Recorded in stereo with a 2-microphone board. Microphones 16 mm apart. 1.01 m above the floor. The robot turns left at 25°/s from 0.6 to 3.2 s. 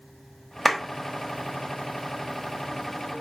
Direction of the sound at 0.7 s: Centre (ahead or behind).